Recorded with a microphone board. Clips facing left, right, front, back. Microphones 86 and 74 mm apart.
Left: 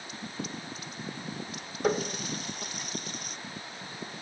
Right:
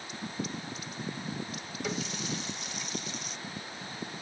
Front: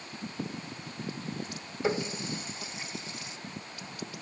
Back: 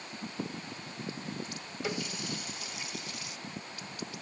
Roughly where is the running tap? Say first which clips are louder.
Left 7 dB, front 6 dB; ahead left.